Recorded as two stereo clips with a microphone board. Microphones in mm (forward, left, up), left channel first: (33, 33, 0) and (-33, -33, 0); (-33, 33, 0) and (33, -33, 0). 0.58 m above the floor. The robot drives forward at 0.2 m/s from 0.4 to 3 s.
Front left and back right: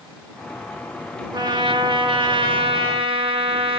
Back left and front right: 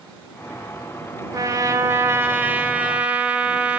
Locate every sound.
1.3 s a trumpet: 95° right, 0.6 m; by 3.8 s 125° right, 0.8 m